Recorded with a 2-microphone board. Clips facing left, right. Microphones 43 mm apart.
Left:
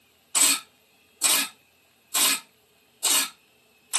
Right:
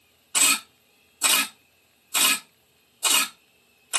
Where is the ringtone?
No ringtone in this recording.